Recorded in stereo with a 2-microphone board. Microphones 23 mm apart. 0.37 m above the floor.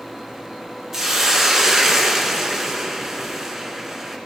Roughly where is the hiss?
Centre.